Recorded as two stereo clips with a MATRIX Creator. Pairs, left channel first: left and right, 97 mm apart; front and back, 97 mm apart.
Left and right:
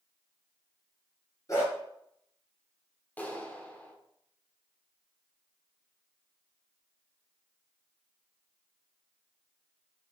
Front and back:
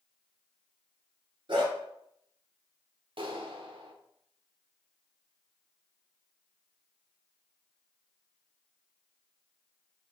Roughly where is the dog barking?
Behind left.